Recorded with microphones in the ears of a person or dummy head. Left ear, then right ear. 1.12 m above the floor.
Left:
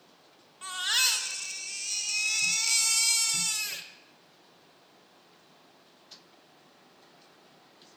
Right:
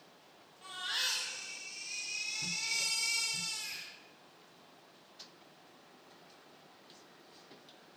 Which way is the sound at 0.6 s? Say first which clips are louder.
Left 9 dB; 50° left (ahead or behind).